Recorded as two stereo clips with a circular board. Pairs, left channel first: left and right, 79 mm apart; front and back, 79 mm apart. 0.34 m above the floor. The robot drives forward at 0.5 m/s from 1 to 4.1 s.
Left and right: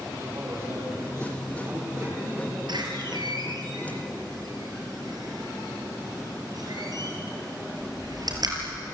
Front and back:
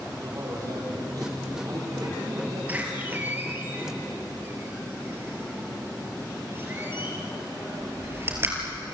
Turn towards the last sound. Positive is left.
turn(degrees=-120)